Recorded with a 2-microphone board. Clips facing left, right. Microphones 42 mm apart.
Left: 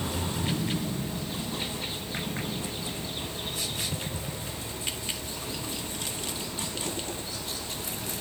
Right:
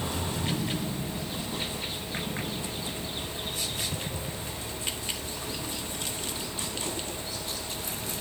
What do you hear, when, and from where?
Only background noise.